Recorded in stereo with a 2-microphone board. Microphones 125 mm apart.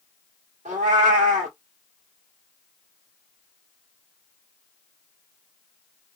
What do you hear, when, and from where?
0.7 s a cat meowing: 80° right, 1.5 m